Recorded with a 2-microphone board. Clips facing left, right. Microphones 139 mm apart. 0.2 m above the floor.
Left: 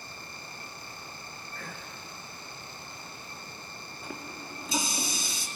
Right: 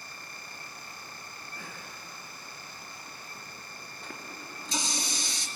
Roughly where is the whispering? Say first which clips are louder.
Left 2 dB; centre.